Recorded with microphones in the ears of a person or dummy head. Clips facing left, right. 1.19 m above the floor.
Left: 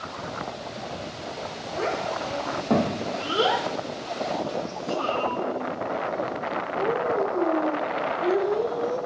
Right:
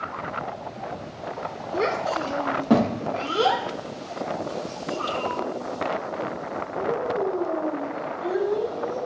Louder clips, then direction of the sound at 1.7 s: Right 3 dB; 45° right (ahead or behind).